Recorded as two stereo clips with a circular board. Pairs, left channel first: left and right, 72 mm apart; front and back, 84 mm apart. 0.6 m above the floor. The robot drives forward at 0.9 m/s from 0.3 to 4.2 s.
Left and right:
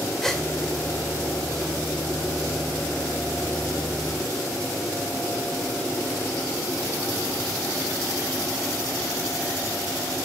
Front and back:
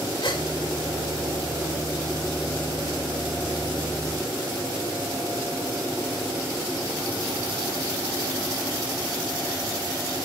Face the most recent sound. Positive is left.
turn(degrees=170)